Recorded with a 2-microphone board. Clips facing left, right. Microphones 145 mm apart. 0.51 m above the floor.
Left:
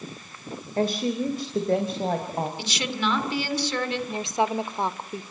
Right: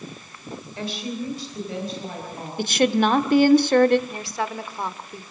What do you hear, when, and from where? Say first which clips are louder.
0.8 s a woman speaking: left 6 dB; 40° left (ahead or behind), 2 m; by 2.5 s 55° left (ahead or behind), 3.5 m
2.6 s a woman speaking: right 10 dB; 50° right (ahead or behind), 1.5 m
4.1 s a woman speaking: left 4 dB; 20° left (ahead or behind), 1.2 m